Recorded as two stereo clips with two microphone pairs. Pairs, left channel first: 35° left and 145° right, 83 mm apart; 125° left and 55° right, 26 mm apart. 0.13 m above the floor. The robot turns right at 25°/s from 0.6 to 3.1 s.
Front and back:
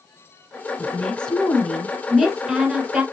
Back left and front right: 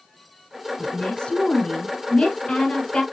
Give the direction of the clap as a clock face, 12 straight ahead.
No clap in this recording.